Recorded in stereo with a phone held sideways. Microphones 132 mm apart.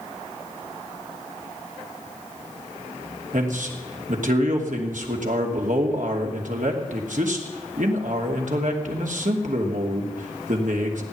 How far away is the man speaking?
About 2.5 m.